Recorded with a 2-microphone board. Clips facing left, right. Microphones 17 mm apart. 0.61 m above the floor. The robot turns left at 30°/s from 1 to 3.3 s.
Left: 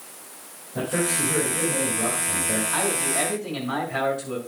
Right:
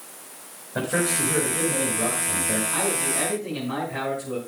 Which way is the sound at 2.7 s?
30° left (ahead or behind).